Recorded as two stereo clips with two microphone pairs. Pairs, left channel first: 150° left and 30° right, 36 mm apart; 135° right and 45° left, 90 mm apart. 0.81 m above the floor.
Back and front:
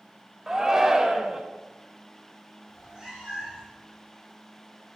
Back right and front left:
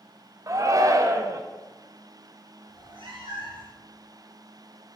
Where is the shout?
35° left, 0.6 m.